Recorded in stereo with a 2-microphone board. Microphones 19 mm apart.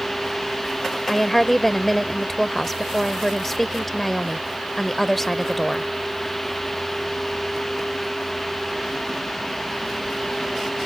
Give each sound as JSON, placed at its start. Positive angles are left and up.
{"t": 1.1, "sound": "a woman speaking", "side_deg": 10}